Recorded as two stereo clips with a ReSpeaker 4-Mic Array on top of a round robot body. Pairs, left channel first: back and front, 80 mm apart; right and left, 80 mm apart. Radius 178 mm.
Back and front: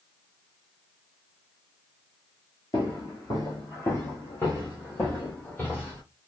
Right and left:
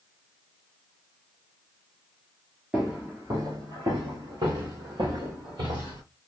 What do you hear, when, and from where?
2.7 s footsteps: 170° left, 0.7 m; by 6.0 s 120° left, 2 m